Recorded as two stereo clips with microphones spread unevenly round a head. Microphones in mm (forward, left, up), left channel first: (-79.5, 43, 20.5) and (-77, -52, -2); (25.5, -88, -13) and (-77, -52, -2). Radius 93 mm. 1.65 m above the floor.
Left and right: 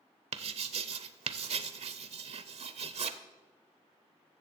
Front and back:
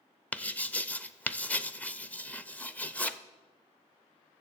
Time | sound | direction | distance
0.3 | writing | 100° right | 0.6 m